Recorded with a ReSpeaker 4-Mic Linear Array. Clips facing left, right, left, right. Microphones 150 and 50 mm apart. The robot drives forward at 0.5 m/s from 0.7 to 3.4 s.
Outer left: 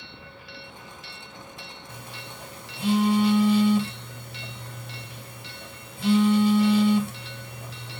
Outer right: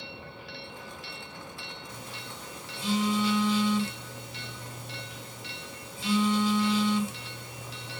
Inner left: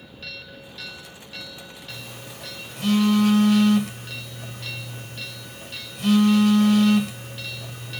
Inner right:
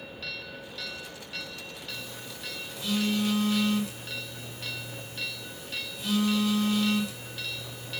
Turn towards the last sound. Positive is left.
turn(degrees=60)  # may be behind; listen again after turning